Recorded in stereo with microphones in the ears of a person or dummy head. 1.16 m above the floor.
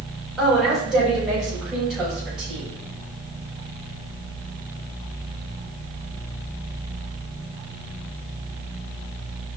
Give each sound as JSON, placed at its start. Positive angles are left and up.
{"t": 0.4, "sound": "a woman speaking", "side_deg": 0, "distance_m": 3.5}